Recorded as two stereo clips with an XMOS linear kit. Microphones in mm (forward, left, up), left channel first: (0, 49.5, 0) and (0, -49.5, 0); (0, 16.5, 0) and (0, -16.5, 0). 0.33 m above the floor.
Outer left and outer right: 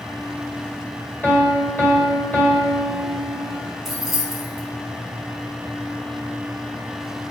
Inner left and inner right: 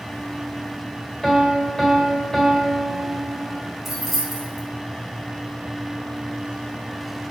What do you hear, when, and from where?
1.2 s a piano: 15° left (ahead or behind), 1.5 m
3.9 s keys jangling: 5° right (ahead or behind), 2 m